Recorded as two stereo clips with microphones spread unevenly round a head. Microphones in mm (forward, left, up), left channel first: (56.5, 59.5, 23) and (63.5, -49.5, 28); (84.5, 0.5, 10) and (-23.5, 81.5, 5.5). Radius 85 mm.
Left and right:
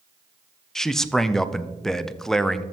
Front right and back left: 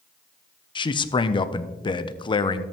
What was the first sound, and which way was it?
A man speaking, 10° left.